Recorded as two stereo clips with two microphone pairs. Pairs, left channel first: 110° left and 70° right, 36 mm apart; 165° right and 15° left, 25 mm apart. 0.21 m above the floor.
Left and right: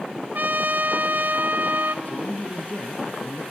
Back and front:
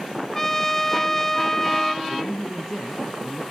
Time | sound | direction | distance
0.3 | a trumpet | 90° right | 0.6 m
2.0 | a man speaking | 140° left | 3 m